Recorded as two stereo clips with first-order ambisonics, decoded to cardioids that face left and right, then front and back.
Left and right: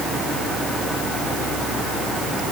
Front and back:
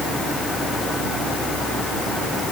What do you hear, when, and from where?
Only background noise.